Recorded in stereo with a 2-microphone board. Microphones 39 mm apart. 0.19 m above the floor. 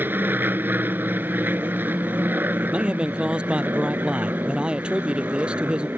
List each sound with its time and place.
0.0 s an aircraft: 60° right (ahead or behind)
2.6 s a man speaking: 25° right (ahead or behind)